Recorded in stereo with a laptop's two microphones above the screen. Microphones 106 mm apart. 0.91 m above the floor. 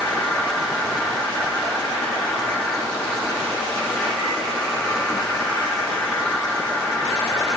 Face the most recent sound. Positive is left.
turn(degrees=5)  # may be behind; listen again after turning